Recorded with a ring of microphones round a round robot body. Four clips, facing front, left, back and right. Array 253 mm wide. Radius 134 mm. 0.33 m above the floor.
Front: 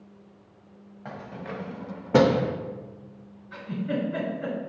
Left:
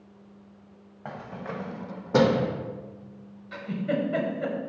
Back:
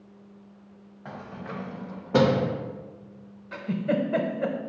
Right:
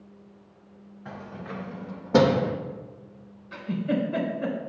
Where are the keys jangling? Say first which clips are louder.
Left 2 dB, front 1 dB; 75° left, 1.2 m; by 2.5 s 75° right, 0.7 m.